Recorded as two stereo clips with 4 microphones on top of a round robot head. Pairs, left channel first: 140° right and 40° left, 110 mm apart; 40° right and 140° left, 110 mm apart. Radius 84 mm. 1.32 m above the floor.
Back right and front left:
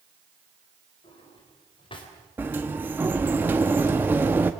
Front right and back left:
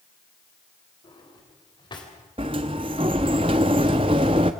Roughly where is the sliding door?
Left.